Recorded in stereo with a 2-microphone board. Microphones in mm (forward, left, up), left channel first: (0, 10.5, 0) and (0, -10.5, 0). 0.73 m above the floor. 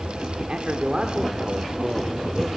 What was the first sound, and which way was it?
A man speaking, 55° right (ahead or behind).